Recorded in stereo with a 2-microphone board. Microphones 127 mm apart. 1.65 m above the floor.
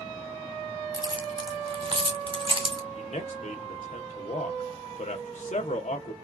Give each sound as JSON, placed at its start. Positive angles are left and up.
{"t": 0.9, "sound": "keys jangling", "side_deg": -40, "distance_m": 1.1}
{"t": 3.0, "sound": "a man speaking", "side_deg": 65, "distance_m": 1.2}